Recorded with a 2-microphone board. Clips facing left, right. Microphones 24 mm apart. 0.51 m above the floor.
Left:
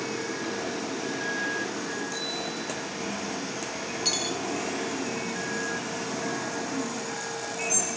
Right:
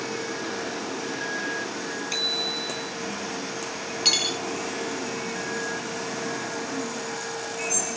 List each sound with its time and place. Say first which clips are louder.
2.1 s a bicycle bell: right 6 dB; 55° right (ahead or behind), 3.5 m
4.0 s cutlery clinking: right 7 dB; 35° right (ahead or behind), 0.7 m